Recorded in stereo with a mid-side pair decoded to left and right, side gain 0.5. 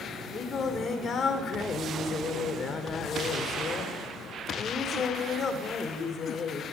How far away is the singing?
About 4.5 m.